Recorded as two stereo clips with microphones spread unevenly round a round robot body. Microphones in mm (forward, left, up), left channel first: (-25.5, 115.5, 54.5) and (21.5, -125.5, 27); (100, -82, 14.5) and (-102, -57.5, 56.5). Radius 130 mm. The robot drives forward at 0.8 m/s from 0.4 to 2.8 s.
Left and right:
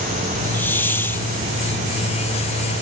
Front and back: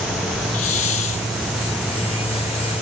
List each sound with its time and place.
0.5 s a hiss: 20° left